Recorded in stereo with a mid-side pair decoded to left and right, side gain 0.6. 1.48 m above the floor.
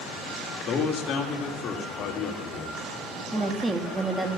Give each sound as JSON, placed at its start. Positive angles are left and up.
{"t": 0.7, "sound": "a man speaking", "azimuth_deg": 50, "distance_m": 3.0}
{"t": 3.3, "sound": "a woman speaking", "azimuth_deg": -15, "distance_m": 2.5}